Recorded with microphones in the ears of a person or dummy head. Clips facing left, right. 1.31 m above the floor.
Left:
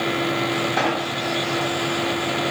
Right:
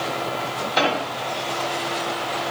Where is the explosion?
45° right (ahead or behind), 4 m.